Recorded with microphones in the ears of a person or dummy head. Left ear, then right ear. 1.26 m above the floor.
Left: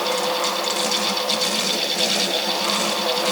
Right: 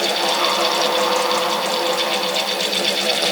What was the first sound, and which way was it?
Only background noise.